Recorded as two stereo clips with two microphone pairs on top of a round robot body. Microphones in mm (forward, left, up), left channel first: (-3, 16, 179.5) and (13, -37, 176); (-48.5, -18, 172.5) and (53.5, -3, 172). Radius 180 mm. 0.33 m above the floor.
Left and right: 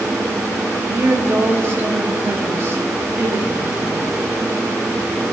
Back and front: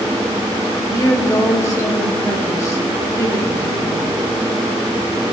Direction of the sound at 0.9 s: 110° right.